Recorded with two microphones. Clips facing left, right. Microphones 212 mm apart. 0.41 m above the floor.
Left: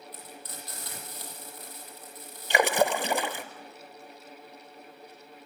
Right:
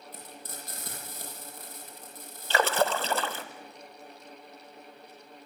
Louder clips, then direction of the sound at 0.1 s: Even; 45° right (ahead or behind).